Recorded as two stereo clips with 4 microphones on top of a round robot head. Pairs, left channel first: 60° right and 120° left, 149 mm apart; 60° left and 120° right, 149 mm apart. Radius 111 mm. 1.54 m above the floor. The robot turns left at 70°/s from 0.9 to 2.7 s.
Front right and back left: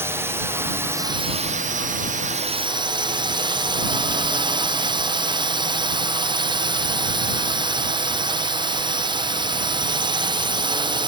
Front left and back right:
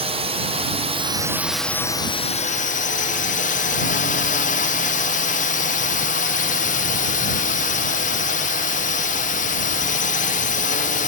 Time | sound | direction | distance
0.0 | a drone | 165° right | ?